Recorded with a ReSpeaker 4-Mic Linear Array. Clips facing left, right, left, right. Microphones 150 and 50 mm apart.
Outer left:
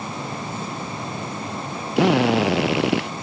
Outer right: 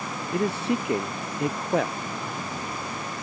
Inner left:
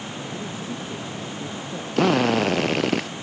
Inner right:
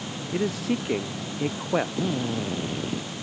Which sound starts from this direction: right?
A man speaking, at 0.3 s.